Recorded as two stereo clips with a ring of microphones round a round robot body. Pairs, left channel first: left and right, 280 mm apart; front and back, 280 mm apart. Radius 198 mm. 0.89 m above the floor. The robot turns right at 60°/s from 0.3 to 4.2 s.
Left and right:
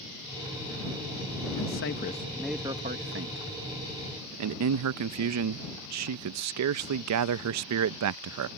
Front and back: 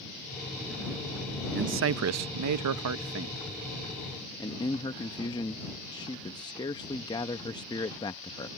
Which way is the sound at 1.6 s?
125° left.